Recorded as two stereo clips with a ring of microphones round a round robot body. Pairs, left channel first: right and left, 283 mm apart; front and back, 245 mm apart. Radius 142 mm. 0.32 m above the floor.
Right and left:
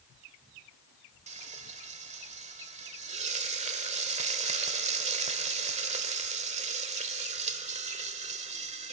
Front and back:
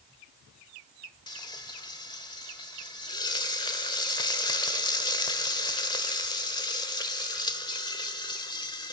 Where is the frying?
55° left, 1.3 m.